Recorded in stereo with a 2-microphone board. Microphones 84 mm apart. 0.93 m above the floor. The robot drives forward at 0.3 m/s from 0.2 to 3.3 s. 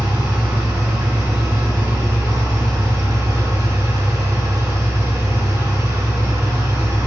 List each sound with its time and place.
0.0 s an engine running: 60° right (ahead or behind), 2 m; by 7.1 s 45° right (ahead or behind), 2.5 m